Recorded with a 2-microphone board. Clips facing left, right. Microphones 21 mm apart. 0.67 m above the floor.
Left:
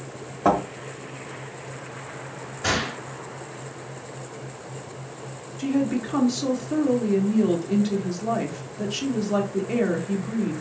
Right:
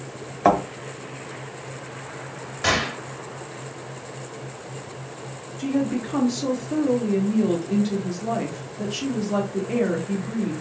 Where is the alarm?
No alarm in this recording.